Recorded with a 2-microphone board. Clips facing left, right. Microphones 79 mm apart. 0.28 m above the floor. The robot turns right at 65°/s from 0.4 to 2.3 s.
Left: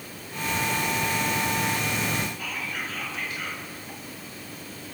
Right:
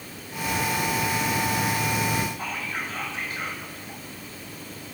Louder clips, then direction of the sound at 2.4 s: Right 2 dB; 35° right (ahead or behind).